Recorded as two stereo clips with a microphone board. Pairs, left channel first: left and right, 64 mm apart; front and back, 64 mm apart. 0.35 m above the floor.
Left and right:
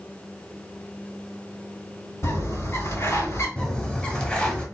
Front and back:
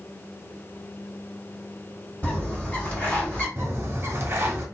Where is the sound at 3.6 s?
155° left, 0.8 m.